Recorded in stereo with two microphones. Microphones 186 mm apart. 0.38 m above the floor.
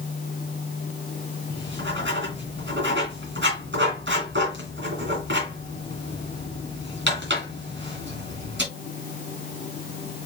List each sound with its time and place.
1.5 s writing: 80° right, 2.5 m